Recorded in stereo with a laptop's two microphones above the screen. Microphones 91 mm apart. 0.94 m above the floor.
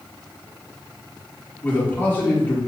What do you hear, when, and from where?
1.6 s a man speaking: 25° left (ahead or behind), 2 m